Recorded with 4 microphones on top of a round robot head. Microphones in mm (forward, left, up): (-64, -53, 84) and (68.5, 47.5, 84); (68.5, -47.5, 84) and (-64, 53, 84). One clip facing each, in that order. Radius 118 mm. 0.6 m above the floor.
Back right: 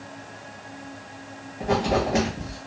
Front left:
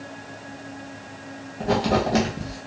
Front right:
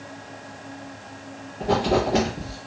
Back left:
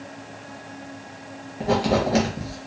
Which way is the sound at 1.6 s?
90° left.